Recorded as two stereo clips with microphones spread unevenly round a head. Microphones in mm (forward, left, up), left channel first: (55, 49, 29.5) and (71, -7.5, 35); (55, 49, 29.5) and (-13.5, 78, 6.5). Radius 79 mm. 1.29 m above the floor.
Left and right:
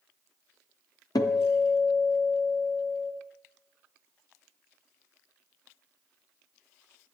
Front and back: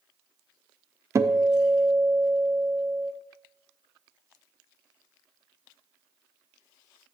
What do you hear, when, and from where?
1.1 s a guitar: 110° left, 0.6 m